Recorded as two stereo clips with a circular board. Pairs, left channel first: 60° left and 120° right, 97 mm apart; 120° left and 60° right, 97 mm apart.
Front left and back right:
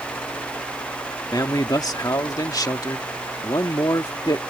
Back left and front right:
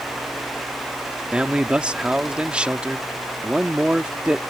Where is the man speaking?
15° left.